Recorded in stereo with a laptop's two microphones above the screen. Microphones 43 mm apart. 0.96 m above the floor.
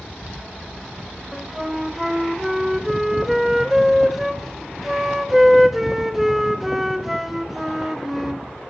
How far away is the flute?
About 0.8 m.